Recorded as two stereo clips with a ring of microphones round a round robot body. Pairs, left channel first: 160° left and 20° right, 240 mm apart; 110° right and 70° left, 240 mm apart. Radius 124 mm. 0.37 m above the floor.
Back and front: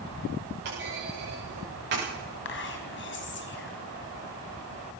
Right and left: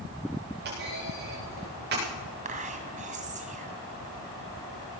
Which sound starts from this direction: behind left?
Whispering, at 2.5 s.